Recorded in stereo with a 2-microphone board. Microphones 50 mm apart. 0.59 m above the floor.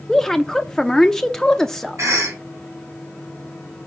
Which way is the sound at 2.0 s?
75° right (ahead or behind).